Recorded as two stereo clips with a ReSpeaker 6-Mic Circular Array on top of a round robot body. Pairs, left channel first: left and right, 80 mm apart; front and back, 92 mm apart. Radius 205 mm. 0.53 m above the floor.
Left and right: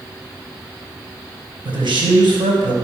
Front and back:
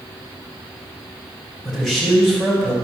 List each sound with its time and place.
1.6 s a man speaking: 85° right, 3.5 m